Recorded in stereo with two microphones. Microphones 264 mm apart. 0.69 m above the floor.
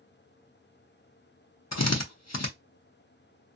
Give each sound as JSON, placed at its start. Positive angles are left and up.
{"t": 1.7, "sound": "a drill", "side_deg": 70, "distance_m": 0.6}